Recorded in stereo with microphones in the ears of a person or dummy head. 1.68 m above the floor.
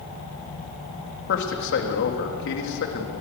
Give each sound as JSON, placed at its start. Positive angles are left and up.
{"t": 1.3, "sound": "a man speaking", "side_deg": 65, "distance_m": 3.5}